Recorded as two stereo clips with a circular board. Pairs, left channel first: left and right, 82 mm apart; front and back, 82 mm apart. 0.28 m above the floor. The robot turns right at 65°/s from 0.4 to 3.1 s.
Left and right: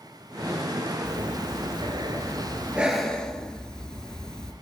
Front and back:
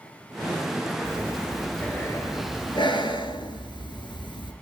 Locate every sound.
1.1 s breathing: 125° right, 3.5 m; by 4.5 s 10° left, 3.5 m